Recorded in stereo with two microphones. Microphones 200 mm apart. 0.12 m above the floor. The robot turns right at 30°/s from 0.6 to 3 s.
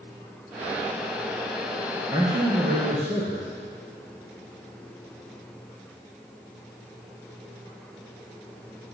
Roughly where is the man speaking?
Centre.